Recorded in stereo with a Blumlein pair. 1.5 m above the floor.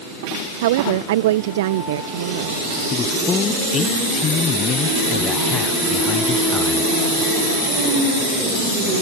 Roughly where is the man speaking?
Ahead left.